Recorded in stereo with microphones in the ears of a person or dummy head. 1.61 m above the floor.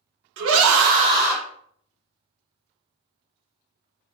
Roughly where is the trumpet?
No trumpet in this recording.